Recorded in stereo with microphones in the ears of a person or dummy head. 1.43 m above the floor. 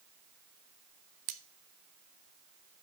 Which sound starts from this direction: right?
Cutlery clinking, at 1.3 s.